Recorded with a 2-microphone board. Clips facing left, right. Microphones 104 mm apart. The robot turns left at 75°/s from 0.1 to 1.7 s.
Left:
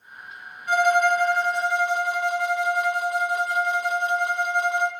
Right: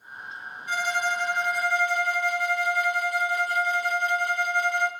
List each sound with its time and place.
0.7 s a violin: 100° left, 0.8 m; by 4.9 s 20° left, 0.8 m